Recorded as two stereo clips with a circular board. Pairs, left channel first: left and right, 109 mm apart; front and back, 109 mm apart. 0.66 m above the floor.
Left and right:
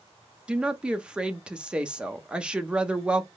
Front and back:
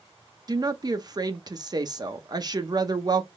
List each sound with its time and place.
0.5 s a woman speaking: 165° right, 0.7 m